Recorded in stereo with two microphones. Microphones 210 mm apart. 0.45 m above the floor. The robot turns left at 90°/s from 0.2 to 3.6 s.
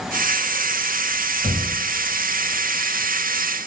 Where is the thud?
5° right (ahead or behind), 0.8 m; by 1.6 s 20° right (ahead or behind), 0.8 m.